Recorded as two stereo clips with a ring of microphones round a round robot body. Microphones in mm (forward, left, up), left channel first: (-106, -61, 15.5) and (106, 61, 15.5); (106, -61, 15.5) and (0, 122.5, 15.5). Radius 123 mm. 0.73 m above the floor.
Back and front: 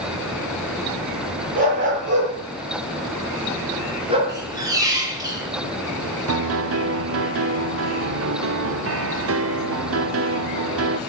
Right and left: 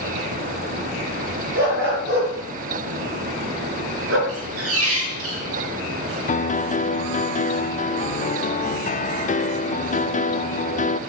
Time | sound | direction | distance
1.6 | a dog barking | 90° left | 6.5 m
4.3 | a squeak | 105° left | 3.5 m
6.3 | a piano | 5° right | 0.6 m